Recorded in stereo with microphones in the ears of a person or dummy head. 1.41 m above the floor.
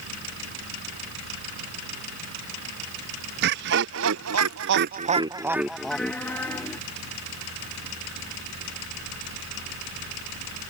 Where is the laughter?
65° right (ahead or behind); by 6.8 s 15° left (ahead or behind).